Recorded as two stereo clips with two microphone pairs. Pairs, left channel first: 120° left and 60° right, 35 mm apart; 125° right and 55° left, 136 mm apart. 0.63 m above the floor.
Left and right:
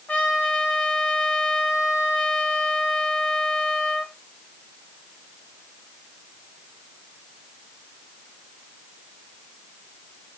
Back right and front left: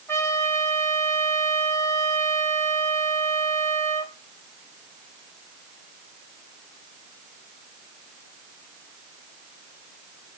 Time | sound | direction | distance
0.1 | a trumpet | 165° left | 4.5 m